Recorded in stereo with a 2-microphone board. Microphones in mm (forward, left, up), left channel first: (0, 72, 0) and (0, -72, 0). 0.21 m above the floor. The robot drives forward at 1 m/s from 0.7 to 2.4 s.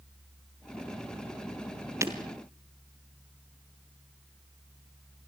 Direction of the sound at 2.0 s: 20° right (ahead or behind).